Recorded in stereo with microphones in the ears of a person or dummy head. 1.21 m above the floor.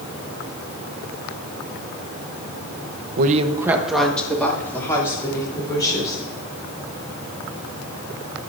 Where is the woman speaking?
55° right (ahead or behind), 0.7 m; by 6.2 s 20° left (ahead or behind), 4.5 m.